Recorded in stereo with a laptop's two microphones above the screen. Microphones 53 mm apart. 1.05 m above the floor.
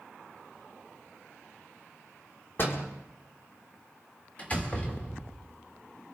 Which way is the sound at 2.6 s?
45° left (ahead or behind).